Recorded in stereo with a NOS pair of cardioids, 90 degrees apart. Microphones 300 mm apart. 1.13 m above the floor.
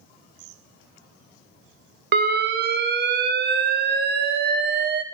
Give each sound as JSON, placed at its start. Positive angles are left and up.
{"t": 2.1, "sound": "an alarm", "azimuth_deg": -35, "distance_m": 0.6}